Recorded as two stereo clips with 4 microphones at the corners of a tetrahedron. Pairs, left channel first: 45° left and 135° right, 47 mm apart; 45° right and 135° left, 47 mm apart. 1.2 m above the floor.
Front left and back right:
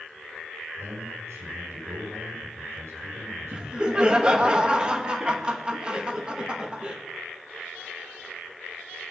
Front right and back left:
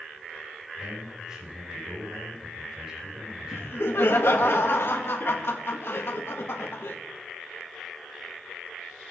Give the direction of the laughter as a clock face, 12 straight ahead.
2 o'clock.